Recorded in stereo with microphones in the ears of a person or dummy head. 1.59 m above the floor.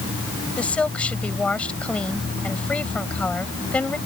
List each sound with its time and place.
0.6 s a woman speaking: 10° left (ahead or behind)